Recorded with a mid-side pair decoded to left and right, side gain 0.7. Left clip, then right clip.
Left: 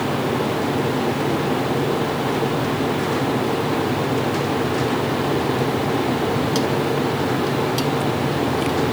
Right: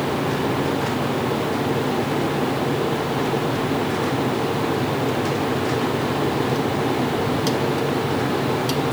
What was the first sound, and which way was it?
Only background noise.